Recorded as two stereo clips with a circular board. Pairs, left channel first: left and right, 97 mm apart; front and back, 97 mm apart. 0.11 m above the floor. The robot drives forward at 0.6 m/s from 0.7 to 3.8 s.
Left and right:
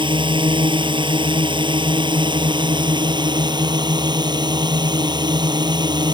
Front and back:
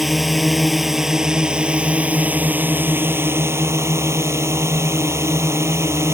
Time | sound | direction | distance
0.0 | a drone | 90° right | ?